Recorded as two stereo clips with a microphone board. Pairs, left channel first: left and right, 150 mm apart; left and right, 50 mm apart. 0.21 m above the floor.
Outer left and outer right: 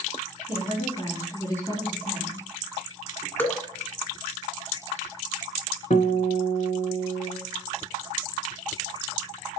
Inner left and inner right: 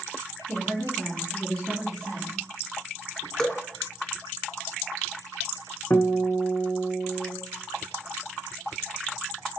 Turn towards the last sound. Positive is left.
turn(degrees=55)  # may be behind; listen again after turning